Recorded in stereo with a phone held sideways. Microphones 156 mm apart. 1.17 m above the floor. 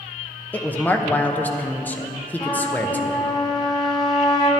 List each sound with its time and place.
0.5 s a woman speaking: 10° left (ahead or behind), 0.7 m
2.4 s a trumpet: 25° left (ahead or behind), 1.1 m